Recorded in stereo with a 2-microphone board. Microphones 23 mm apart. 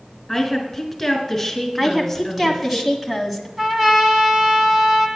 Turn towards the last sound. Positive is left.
turn(degrees=-15)  # may be behind; listen again after turning